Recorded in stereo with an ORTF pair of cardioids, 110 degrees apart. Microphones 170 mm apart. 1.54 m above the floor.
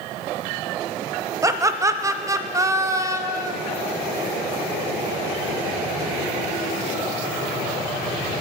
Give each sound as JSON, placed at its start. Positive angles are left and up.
{"t": 1.4, "sound": "laughter", "azimuth_deg": -20, "distance_m": 0.6}